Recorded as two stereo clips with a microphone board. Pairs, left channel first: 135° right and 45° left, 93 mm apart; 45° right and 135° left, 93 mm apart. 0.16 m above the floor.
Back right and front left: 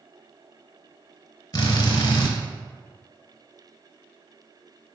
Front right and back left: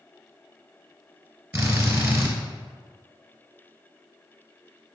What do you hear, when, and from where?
1.5 s a drill: 165° right, 0.8 m